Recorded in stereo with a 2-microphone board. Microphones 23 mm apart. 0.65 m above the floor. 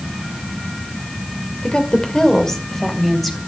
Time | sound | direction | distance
1.6 | a woman speaking | 50° left (ahead or behind) | 2 m